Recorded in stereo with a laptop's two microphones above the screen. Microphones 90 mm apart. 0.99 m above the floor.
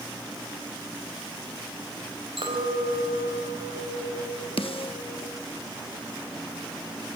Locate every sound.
2.4 s a clink: 85° right, 3.5 m
4.6 s a snare drum: 80° left, 0.9 m